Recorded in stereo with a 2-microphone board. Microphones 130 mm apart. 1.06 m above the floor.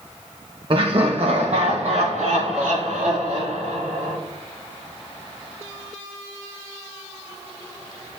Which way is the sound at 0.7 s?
40° right (ahead or behind).